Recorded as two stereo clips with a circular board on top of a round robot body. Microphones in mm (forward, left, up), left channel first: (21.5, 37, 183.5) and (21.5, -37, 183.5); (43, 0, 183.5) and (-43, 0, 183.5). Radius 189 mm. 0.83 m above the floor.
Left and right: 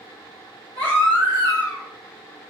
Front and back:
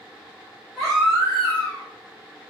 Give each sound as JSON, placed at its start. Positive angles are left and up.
{"t": 0.8, "sound": "a baby crying", "azimuth_deg": 90, "distance_m": 1.2}